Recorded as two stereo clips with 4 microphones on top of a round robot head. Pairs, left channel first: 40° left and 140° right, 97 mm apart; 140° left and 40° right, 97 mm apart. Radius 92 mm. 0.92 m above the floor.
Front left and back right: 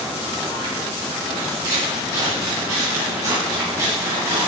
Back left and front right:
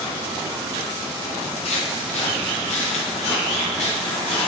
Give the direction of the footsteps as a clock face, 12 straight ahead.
7 o'clock.